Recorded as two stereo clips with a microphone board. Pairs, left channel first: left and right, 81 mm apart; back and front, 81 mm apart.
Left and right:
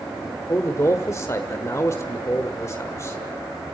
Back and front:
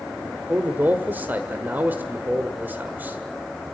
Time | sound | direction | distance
0.5 | a man speaking | 60° left | 1.4 m